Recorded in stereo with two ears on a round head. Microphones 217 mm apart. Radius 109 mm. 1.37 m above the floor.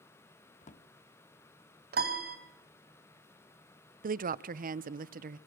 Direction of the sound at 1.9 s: 40° right (ahead or behind).